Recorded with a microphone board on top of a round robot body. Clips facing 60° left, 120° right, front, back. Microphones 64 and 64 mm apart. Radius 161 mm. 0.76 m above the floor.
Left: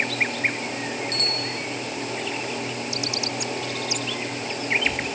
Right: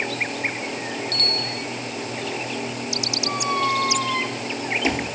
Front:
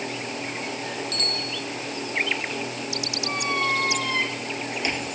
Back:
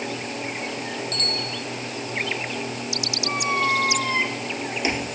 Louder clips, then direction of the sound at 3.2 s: Right 7 dB, back 3 dB; 105° right.